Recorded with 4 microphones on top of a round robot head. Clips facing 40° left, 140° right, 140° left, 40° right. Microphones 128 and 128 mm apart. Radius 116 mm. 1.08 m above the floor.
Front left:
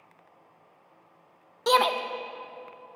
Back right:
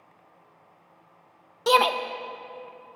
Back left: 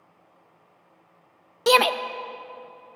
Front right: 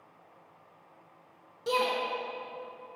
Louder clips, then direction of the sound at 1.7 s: Back right 2 dB, back left 10 dB; 130° left.